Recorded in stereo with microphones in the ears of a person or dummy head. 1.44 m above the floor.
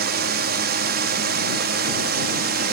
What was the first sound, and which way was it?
A drone, 50° right (ahead or behind).